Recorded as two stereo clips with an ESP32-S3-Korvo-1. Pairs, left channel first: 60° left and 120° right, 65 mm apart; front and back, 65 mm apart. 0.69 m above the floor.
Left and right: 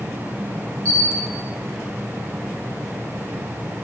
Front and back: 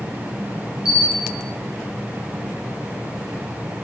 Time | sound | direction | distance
0.8 | a camera shutter | 105° right | 1.5 m